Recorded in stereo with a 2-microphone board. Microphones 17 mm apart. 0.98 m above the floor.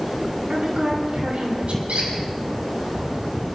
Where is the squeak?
80° right, 4.5 m.